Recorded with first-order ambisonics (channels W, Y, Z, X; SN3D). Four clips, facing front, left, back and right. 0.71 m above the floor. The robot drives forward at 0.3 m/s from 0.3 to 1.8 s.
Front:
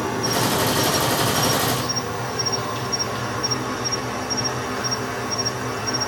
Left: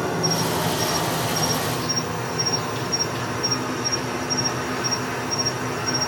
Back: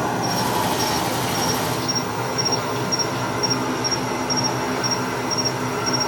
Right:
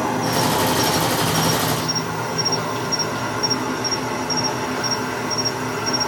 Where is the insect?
120° right, 1.7 m; by 6.1 s 135° right, 1.9 m.